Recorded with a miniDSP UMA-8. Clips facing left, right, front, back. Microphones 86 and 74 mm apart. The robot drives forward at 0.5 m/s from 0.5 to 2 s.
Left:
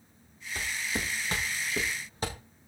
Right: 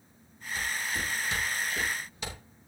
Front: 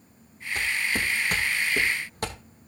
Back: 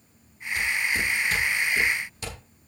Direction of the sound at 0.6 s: 45° left.